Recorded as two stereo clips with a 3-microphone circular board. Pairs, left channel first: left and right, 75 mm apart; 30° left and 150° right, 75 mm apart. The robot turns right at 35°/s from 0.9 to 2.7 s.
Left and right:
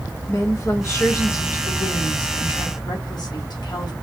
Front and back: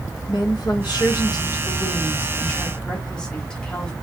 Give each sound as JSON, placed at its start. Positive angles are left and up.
{"t": 0.3, "sound": "a woman speaking", "azimuth_deg": 45, "distance_m": 1.5}